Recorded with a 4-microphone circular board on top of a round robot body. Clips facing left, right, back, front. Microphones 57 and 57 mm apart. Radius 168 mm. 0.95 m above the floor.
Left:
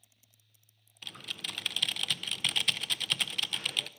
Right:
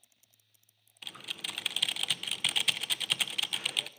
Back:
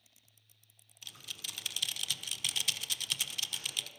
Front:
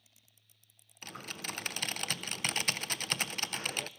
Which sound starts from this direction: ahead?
Typing on a keyboard, at 1.0 s.